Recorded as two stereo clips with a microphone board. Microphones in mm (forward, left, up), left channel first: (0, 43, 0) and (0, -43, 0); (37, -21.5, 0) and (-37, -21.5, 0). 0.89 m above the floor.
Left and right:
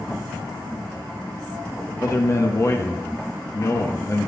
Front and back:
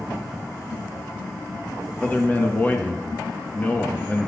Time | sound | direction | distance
2.0 | a man speaking | 55° left | 0.8 m